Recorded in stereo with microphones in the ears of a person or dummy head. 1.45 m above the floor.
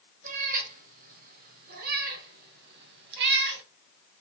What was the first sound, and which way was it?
A cat meowing, 50° right (ahead or behind).